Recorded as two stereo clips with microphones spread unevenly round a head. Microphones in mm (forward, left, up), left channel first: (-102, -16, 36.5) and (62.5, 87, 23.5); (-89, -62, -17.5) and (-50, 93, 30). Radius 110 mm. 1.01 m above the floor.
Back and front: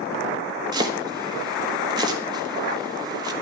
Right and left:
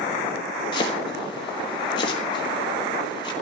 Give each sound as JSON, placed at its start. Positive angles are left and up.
{"t": 0.7, "sound": "chopping", "azimuth_deg": -40, "distance_m": 1.4}